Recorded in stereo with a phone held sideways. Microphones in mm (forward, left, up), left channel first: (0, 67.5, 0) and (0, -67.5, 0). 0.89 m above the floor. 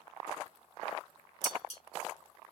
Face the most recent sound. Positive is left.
turn(degrees=55)  # may be behind; listen again after turning